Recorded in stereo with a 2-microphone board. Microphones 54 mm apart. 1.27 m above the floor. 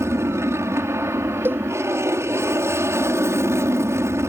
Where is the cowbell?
40° right (ahead or behind).